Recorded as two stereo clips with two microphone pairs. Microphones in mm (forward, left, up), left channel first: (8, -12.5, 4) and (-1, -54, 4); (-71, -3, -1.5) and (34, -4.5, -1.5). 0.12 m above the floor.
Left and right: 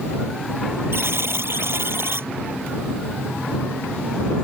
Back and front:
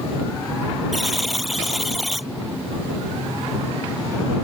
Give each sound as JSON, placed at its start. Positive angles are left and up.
{"t": 0.9, "sound": "a buzzer", "azimuth_deg": -90}